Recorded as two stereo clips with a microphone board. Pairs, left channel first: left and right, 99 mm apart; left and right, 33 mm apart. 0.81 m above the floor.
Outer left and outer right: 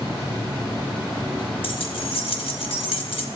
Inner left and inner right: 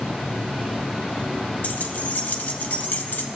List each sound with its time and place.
1.6 s keys jangling: 70° left (ahead or behind), 0.9 m